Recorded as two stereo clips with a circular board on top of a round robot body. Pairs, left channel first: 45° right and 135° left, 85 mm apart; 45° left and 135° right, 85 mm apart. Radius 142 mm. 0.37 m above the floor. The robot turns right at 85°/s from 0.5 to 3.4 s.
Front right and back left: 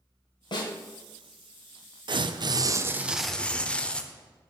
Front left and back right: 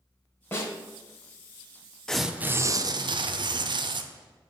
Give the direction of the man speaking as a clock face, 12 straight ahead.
No man speaking in this recording.